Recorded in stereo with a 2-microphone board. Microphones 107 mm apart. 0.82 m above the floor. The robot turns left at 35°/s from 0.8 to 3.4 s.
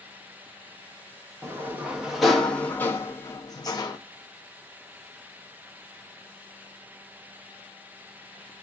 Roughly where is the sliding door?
Behind right.